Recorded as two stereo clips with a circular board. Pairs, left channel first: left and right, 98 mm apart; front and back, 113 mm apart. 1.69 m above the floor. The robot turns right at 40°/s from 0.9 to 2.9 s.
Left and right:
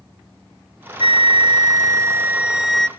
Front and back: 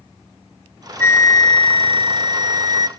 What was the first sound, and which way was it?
A flute, 70° right.